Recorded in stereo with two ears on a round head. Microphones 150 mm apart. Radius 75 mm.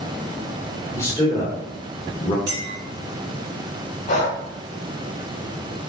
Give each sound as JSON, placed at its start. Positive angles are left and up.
{"t": 0.9, "sound": "a man speaking", "side_deg": 15, "distance_m": 1.6}
{"t": 2.5, "sound": "a clink", "side_deg": -65, "distance_m": 1.8}
{"t": 4.1, "sound": "breathing", "side_deg": 45, "distance_m": 0.8}